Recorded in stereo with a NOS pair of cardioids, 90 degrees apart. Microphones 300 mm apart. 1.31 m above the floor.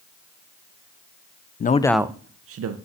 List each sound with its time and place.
1.6 s a man speaking: 35° left, 0.8 m; by 2.8 s 65° right, 1.1 m